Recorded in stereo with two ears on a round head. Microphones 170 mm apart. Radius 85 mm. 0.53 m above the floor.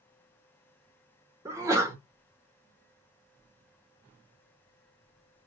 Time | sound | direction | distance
1.4 | a sneeze | 15° right (ahead or behind) | 0.7 m